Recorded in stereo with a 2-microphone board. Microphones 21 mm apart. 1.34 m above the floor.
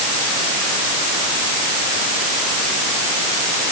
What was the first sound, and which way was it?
Only background noise.